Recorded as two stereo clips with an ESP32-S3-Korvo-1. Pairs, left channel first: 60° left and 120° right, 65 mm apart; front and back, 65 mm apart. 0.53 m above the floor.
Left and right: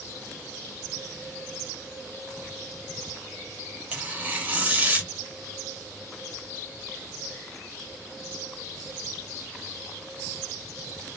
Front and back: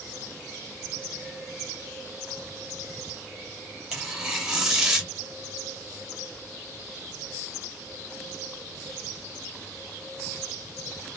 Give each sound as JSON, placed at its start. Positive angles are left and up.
{"t": 3.9, "sound": "tearing paper", "azimuth_deg": -110, "distance_m": 0.9}